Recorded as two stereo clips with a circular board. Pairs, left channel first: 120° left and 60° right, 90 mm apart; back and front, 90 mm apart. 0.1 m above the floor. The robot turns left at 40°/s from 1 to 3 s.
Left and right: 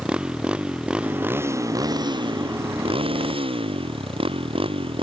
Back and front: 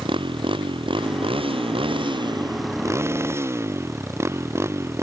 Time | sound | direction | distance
0.0 | a motorcycle | 20° left | ?